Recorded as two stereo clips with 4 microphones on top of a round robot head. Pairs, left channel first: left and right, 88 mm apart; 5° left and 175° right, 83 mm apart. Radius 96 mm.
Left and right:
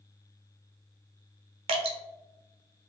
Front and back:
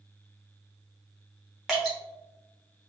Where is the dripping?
90° right, 0.7 m.